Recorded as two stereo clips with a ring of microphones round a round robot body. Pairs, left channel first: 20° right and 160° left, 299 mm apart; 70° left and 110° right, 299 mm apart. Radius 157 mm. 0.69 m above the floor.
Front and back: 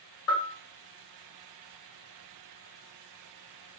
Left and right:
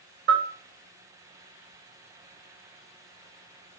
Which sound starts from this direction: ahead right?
A bell, at 0.3 s.